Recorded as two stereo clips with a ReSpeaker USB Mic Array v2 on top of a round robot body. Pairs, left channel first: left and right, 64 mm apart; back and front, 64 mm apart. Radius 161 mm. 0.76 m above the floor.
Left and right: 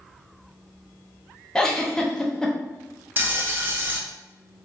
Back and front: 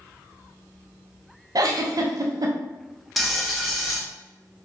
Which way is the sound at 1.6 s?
10° left.